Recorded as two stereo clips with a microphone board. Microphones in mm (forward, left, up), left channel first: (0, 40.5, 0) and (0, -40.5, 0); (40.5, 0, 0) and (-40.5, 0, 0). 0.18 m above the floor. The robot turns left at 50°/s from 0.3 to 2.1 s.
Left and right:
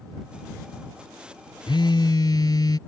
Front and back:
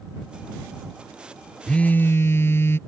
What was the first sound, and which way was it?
A phone buzzing, 80° left.